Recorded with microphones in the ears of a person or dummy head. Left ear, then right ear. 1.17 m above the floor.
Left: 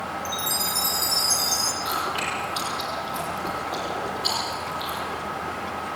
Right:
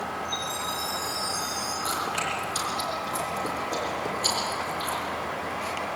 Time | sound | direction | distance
0.2 | a chime | 35° left (ahead or behind) | 4.5 m
1.8 | chewing | 75° right (ahead or behind) | 9.5 m